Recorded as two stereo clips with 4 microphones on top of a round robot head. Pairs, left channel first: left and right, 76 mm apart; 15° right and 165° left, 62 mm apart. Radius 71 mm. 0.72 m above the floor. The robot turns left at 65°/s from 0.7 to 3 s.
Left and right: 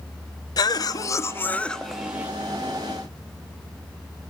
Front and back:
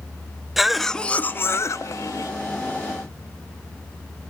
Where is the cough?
80° left, 1.1 m; by 2.3 s 25° right, 1.1 m.